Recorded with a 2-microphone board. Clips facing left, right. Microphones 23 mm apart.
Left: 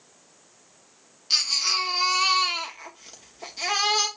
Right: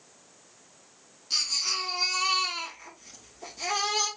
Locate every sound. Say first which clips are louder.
1.3 s a baby crying: left 5 dB; 75° left (ahead or behind), 2.5 m